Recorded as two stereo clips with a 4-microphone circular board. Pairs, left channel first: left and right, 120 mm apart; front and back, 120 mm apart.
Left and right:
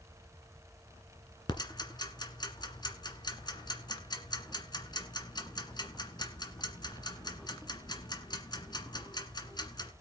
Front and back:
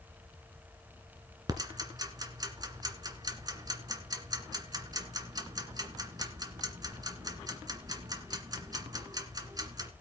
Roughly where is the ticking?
Behind left.